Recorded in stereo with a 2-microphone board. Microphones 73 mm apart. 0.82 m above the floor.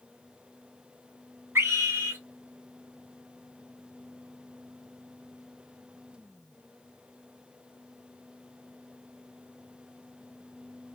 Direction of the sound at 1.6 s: 35° right (ahead or behind).